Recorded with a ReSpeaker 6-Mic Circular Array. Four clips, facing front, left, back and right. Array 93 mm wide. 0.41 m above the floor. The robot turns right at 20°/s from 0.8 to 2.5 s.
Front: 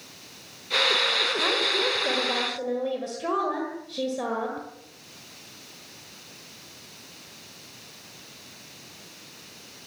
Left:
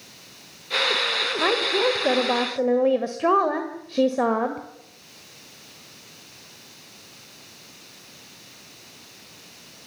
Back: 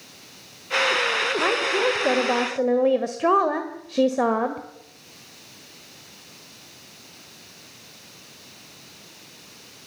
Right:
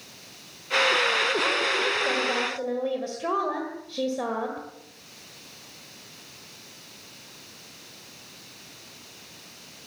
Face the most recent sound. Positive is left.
turn(degrees=140)